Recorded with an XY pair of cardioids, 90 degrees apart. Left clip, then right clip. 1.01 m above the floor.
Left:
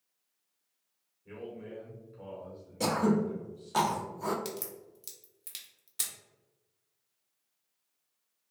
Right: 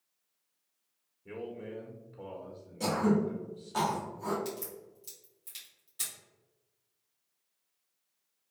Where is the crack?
65° left, 1.4 m.